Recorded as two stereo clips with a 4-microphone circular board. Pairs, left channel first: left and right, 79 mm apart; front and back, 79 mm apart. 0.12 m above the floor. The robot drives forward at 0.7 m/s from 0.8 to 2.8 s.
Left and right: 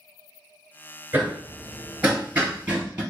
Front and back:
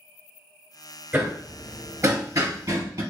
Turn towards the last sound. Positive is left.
turn(degrees=-160)